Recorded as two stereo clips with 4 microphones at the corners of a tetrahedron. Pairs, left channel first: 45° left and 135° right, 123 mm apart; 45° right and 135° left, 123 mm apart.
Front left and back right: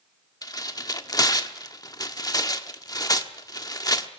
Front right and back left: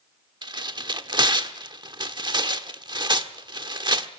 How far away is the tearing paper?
About 1.2 m.